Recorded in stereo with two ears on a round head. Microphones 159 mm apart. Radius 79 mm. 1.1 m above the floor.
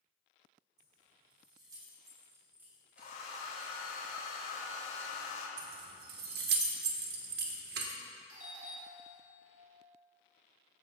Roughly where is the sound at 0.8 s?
Right.